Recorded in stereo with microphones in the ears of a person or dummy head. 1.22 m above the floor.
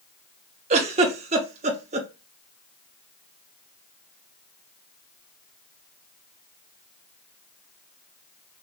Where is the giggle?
30° right (ahead or behind), 0.7 m.